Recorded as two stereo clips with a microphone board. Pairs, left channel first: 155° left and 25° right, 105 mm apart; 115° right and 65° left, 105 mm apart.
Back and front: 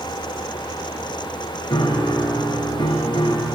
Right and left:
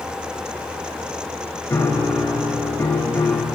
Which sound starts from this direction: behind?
A piano, at 1.7 s.